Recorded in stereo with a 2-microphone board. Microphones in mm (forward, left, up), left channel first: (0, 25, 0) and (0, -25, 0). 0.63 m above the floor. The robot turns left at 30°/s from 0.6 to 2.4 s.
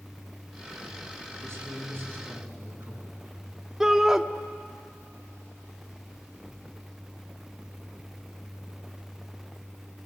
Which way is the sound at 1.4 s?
60° right (ahead or behind).